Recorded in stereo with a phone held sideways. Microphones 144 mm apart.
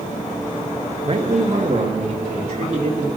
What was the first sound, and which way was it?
A man speaking, 40° right (ahead or behind).